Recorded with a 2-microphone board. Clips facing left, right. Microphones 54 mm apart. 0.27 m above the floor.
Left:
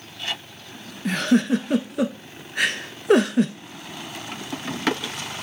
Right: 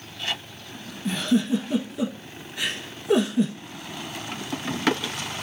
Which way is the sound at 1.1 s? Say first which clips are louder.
Left 3 dB; 65° left (ahead or behind).